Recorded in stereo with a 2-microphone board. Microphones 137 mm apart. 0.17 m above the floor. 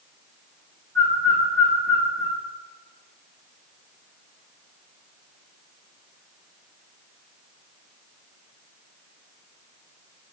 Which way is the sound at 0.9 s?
15° left (ahead or behind).